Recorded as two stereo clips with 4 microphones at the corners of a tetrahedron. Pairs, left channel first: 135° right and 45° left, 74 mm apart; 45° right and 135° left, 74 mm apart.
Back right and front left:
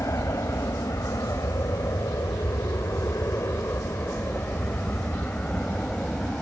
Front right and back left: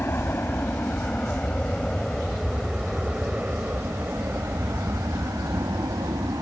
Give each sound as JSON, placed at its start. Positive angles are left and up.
{"t": 0.0, "sound": "an aircraft", "azimuth_deg": -100}